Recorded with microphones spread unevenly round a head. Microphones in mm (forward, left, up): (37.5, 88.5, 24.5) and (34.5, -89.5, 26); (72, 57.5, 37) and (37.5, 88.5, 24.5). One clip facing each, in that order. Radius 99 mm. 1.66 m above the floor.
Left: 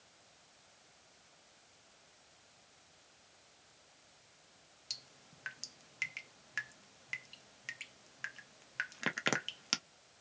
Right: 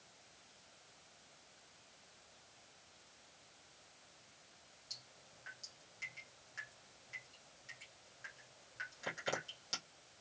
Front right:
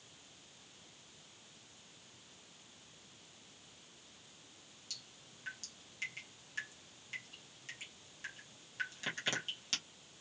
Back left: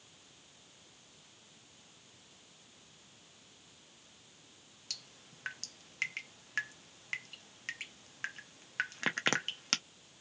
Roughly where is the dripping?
Left.